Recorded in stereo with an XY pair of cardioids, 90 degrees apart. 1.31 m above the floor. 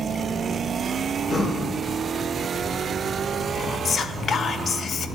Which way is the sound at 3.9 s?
55° left.